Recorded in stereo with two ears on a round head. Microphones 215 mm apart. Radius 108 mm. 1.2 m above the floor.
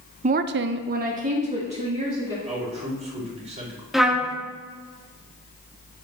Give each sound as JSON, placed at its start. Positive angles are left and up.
{"t": 0.2, "sound": "a woman speaking", "side_deg": -25, "distance_m": 0.6}
{"t": 2.5, "sound": "a man speaking", "side_deg": -30, "distance_m": 4.0}
{"t": 3.9, "sound": "a trumpet", "side_deg": 0, "distance_m": 0.9}